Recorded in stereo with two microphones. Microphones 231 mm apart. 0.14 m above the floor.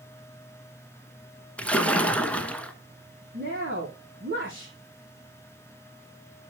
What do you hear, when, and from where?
1.6 s a splash: 5° left (ahead or behind), 0.9 m
3.3 s a woman speaking: 55° right (ahead or behind), 4.5 m